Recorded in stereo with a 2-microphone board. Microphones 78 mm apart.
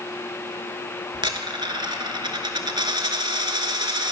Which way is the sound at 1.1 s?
85° right.